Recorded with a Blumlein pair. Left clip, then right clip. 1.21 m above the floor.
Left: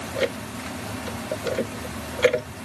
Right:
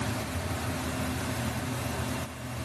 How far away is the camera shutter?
No camera shutter in this recording.